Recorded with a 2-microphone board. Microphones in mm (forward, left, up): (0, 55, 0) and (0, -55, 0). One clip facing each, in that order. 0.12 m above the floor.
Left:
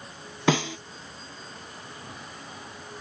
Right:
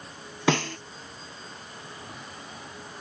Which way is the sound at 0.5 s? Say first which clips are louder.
Left 1 dB; 5° left (ahead or behind).